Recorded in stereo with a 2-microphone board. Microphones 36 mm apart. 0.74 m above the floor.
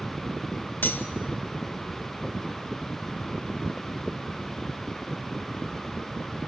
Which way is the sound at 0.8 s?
75° left (ahead or behind).